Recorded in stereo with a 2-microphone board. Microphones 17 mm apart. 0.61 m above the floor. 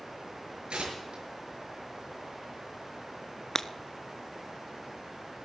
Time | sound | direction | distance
0.7 | tearing paper | 75° right (ahead or behind) | 6 m
3.5 | breaking glass | 25° left (ahead or behind) | 0.6 m